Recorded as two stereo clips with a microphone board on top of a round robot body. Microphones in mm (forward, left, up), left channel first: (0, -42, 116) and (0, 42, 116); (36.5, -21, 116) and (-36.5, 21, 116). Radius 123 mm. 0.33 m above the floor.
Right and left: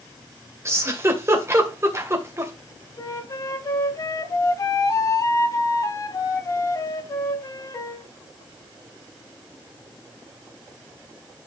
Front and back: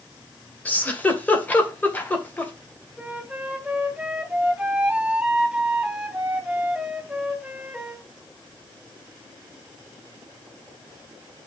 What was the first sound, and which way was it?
A giggle, 40° left.